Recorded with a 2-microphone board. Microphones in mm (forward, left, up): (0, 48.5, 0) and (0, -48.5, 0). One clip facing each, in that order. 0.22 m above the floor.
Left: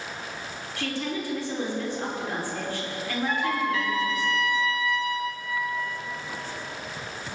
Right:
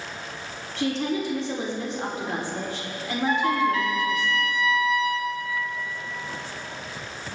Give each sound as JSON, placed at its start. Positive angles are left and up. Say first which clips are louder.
{"t": 0.8, "sound": "a woman speaking", "louder": "right 5 dB", "side_deg": -25, "distance_m": 5.0}
{"t": 3.3, "sound": "a trumpet", "louder": "right 5 dB", "side_deg": -40, "distance_m": 3.5}